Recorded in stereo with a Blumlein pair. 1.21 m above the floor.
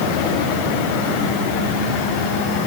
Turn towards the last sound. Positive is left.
No sound to turn to.